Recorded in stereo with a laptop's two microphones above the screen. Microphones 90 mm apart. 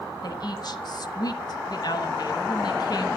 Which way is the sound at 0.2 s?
50° left (ahead or behind).